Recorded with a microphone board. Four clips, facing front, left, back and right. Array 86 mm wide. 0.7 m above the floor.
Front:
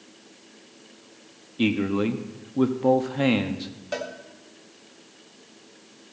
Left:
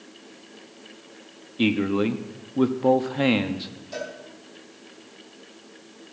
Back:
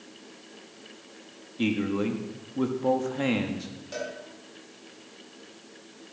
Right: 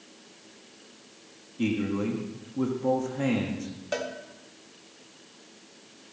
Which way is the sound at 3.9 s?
55° right.